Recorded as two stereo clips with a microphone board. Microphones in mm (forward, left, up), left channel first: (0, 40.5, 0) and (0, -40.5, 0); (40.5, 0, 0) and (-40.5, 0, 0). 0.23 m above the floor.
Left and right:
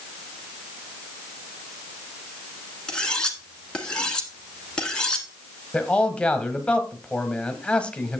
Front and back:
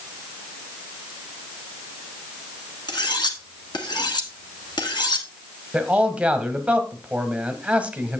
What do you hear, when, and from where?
2.9 s cutlery clinking: 10° left, 1.3 m
5.7 s a man speaking: 140° left, 1.0 m